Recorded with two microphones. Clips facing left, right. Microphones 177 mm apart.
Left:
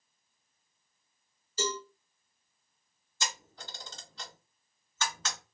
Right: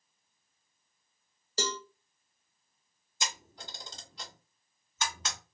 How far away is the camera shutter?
About 1.8 m.